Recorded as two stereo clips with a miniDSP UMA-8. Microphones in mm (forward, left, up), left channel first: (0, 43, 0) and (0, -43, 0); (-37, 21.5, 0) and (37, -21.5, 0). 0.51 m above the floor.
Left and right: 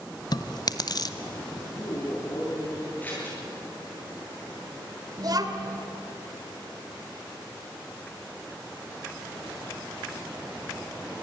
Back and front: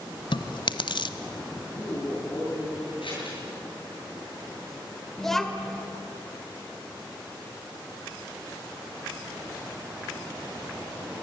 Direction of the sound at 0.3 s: 130° left.